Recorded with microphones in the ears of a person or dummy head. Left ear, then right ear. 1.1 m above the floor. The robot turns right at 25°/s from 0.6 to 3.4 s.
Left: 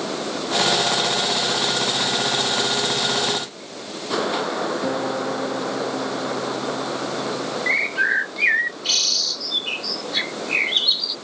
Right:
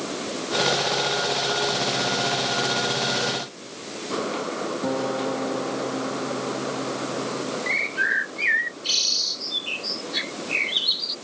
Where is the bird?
15° left (ahead or behind).